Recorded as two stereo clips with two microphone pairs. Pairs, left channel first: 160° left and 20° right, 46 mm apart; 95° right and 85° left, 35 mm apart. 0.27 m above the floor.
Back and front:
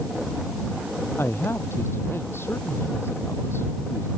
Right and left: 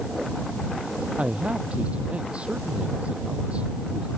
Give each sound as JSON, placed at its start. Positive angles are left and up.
{"t": 1.2, "sound": "a man speaking", "azimuth_deg": 140}